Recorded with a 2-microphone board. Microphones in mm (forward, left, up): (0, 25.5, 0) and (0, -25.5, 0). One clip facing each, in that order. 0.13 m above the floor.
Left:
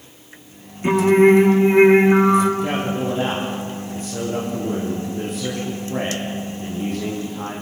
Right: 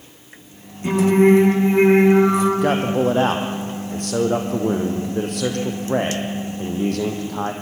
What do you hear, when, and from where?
0.8 s singing: 25° left (ahead or behind), 7 m
2.6 s a man speaking: 65° right (ahead or behind), 4.5 m